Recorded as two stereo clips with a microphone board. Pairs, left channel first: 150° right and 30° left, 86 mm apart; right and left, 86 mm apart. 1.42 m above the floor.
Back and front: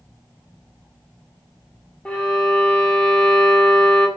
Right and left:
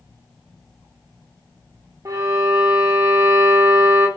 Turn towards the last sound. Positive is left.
turn(degrees=135)